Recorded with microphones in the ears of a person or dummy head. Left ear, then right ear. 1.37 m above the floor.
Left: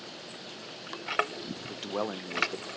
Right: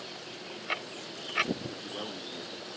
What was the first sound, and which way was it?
A man speaking, 60° left (ahead or behind).